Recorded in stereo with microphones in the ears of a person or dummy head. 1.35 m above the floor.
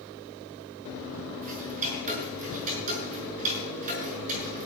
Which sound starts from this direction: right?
Ticking, at 1.4 s.